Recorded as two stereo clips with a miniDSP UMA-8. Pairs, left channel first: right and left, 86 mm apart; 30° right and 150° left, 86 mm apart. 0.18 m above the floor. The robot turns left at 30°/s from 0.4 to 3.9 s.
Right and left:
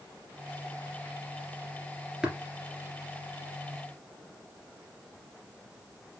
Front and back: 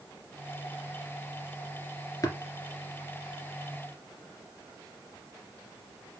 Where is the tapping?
10° left, 2 m; by 2.4 s 5° left, 2 m.